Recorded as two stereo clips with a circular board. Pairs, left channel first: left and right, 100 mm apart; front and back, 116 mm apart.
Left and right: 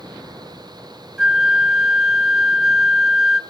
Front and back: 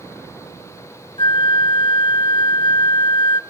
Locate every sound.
1.2 s a flute: 10° right, 0.6 m